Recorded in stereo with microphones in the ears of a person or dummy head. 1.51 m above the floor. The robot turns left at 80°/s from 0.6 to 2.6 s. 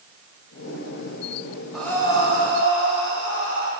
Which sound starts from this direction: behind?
Breathing, at 1.7 s.